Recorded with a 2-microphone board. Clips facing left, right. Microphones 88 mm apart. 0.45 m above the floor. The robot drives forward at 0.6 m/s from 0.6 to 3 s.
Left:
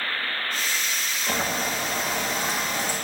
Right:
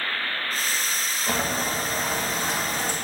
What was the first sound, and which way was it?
Boiling, 30° right (ahead or behind).